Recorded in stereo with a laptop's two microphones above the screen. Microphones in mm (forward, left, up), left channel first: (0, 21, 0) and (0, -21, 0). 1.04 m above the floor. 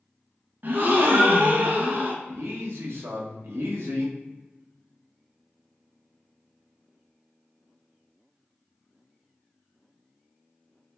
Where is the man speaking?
75° right (ahead or behind), 0.9 m.